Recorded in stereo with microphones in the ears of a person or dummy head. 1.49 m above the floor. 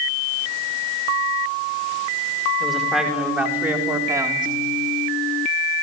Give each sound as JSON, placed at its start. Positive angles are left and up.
{"t": 2.6, "sound": "a man speaking", "side_deg": 0, "distance_m": 5.5}